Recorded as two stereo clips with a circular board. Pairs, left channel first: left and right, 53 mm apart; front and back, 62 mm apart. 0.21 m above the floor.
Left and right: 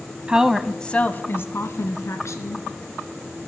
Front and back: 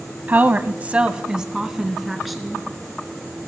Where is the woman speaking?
145° right, 1.3 m; by 2.6 s 90° left, 3 m.